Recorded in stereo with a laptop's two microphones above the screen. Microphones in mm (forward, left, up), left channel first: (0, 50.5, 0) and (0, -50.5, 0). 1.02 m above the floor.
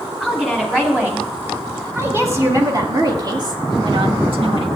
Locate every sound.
0.2 s a woman speaking: 10° right (ahead or behind), 3 m; by 4.7 s 60° right (ahead or behind), 1.9 m